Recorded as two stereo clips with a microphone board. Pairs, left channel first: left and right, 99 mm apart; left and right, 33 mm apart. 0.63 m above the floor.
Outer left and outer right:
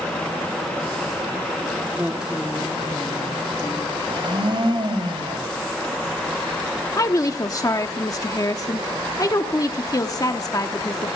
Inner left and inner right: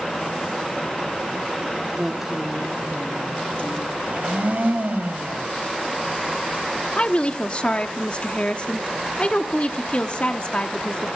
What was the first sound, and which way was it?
A woman speaking, 20° right (ahead or behind).